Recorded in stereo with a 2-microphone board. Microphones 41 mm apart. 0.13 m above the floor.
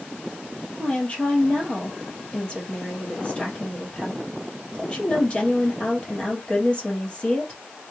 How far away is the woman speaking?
About 3 m.